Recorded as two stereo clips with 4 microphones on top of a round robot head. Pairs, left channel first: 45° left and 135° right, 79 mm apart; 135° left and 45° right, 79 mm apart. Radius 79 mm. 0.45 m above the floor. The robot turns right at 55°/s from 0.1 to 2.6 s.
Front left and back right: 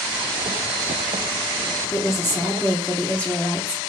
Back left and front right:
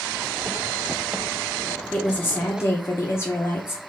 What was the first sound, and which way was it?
A woman speaking, 70° left.